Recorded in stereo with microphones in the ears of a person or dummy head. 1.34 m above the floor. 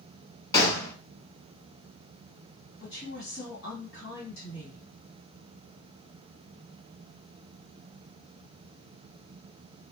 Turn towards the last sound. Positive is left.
turn(degrees=70)  # may be behind; listen again after turning